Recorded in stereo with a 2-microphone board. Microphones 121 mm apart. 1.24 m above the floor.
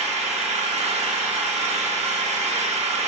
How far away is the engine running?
About 1.2 m.